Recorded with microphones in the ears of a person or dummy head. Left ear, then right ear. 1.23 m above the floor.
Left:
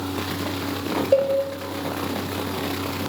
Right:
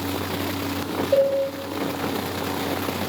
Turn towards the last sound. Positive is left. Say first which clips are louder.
# even
turn(degrees=65)  # may be behind; listen again after turning